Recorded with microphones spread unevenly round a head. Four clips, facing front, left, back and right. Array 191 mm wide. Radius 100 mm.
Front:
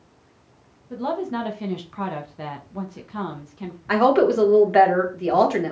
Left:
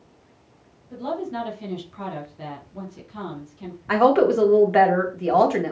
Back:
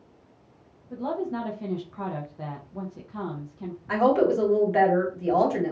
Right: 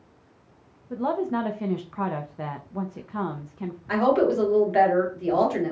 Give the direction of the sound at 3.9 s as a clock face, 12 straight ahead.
11 o'clock.